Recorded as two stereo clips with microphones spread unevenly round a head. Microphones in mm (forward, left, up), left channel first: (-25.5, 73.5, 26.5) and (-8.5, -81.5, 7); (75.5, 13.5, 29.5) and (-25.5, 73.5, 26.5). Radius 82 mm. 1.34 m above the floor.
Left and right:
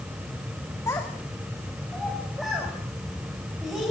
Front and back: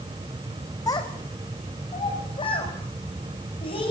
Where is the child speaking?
25° left, 1.9 m; by 3.9 s 5° left, 6.5 m.